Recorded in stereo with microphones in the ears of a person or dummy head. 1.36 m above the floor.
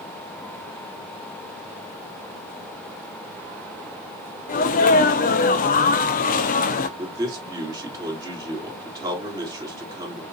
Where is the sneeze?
40° left (ahead or behind), 0.5 m.